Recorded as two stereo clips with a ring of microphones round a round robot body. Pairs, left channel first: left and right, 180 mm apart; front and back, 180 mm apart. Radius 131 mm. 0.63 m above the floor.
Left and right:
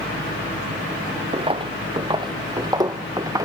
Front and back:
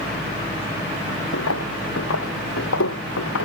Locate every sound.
1.3 s footsteps: 30° right; by 3.4 s 20° right